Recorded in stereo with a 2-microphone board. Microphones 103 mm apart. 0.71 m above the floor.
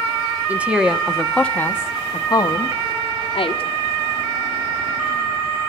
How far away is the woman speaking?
About 1.2 m.